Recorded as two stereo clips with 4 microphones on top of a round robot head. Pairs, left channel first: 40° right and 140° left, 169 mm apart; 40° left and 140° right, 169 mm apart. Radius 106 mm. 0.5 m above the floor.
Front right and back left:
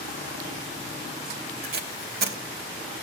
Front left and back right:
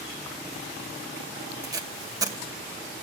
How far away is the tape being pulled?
About 2.5 m.